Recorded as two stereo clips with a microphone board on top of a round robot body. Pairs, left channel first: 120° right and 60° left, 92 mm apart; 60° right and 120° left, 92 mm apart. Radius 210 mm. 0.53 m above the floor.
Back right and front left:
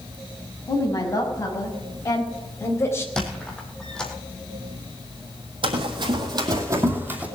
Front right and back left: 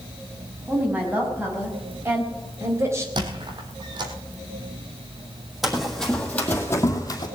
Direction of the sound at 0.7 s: 170° right.